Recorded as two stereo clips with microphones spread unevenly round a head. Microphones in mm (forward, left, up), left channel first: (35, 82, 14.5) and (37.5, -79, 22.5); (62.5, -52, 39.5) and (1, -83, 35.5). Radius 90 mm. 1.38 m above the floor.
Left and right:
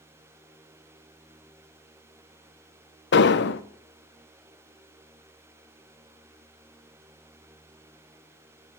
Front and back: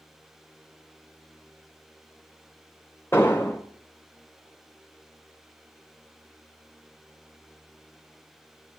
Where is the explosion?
100° left, 0.5 m.